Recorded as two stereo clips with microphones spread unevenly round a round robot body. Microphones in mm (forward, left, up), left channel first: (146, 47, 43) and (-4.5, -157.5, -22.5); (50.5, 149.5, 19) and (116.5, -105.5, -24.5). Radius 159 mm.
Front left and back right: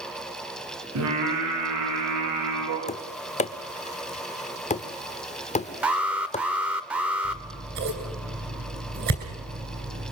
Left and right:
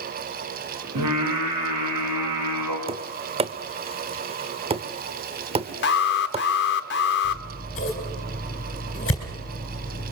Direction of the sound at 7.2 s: 175° left.